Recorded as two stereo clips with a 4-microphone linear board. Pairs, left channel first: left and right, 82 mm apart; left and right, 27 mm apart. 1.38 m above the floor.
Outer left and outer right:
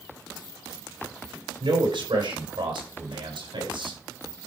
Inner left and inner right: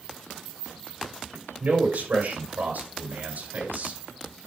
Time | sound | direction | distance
1.6 | a man speaking | 85° right | 6 m